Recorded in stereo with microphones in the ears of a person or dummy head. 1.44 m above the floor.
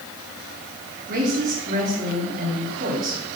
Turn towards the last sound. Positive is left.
turn(degrees=-45)  # may be behind; listen again after turning